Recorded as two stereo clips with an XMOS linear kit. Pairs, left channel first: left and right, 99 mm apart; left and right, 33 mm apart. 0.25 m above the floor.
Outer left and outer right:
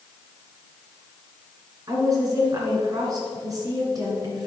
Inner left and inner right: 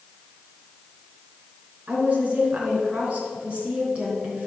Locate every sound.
1.9 s a woman speaking: 40° right (ahead or behind), 3.5 m